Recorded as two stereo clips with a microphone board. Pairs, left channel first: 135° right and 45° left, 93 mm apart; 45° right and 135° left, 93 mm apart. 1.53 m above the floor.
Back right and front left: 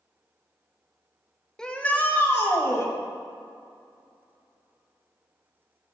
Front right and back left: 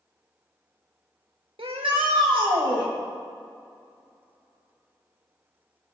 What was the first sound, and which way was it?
A shout, 140° left.